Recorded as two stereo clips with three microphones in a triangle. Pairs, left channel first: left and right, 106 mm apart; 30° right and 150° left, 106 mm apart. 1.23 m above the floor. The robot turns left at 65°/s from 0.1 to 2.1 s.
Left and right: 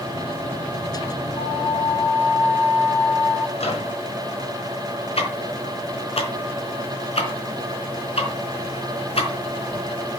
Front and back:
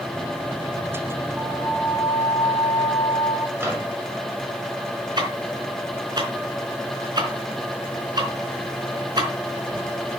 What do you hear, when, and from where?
1.4 s a flute: 75° left, 3.5 m; by 3.5 s 30° left, 3.5 m
3.6 s a microwave: 80° left, 5.5 m
5.2 s ticking: 105° left, 4 m